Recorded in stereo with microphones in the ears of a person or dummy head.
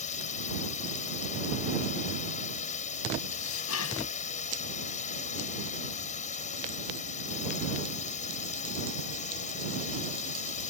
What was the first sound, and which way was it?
A drone, 45° left (ahead or behind).